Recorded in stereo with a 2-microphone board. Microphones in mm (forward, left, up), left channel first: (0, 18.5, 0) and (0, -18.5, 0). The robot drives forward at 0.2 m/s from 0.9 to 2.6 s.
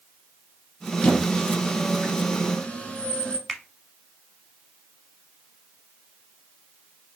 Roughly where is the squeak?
Left.